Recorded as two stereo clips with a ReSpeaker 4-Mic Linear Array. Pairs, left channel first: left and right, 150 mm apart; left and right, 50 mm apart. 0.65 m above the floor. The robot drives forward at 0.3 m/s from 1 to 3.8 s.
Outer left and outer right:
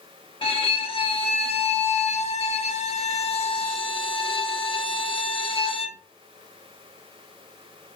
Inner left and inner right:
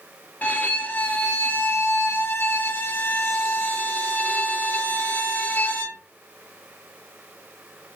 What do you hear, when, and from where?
0.4 s a violin: 35° left (ahead or behind), 0.7 m